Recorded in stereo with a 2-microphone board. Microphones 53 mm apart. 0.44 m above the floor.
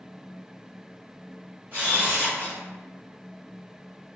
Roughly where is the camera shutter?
Right.